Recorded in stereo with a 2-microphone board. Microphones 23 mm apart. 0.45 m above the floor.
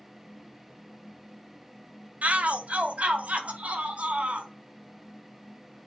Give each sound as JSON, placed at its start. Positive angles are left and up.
{"t": 2.2, "sound": "a shout", "side_deg": -65, "distance_m": 2.0}